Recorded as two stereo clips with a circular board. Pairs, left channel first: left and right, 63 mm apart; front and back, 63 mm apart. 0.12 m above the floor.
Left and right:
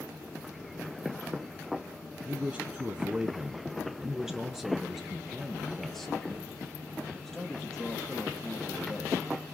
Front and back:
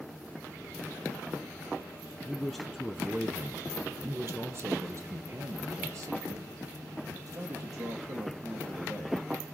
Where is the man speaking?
65° right, 1.1 m; by 9.2 s 170° left, 3.5 m.